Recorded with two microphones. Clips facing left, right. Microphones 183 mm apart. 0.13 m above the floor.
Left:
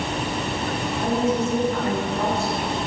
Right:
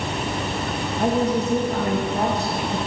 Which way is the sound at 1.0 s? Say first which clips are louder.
Right 2 dB; 40° right (ahead or behind).